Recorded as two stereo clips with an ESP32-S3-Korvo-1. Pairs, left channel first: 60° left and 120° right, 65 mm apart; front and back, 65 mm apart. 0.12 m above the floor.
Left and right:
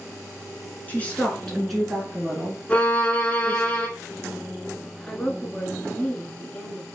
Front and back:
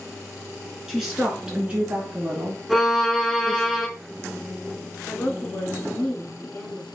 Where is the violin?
95° left, 1.2 m.